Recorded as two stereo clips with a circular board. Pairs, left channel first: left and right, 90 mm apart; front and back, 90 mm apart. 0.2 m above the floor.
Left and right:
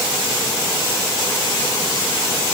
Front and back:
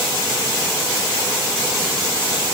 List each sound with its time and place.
Only background noise.